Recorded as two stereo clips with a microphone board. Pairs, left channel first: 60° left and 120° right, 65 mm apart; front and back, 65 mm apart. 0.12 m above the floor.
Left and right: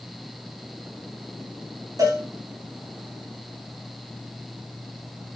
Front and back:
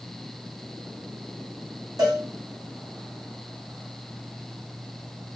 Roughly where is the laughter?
No laughter in this recording.